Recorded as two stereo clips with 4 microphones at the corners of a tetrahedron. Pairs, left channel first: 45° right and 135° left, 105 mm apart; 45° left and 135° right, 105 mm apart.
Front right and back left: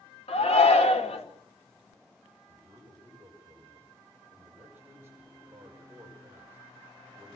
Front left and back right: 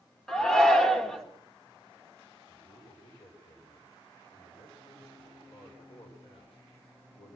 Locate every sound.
0.3 s a shout: 40° right, 2.5 m
2.5 s a man speaking: 65° left, 6 m